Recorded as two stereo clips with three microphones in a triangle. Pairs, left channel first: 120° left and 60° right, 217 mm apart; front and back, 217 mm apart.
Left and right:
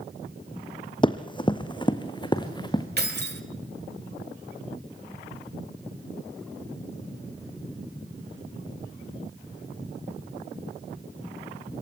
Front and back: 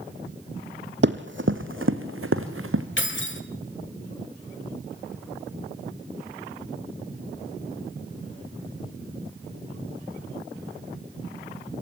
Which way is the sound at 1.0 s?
Straight behind.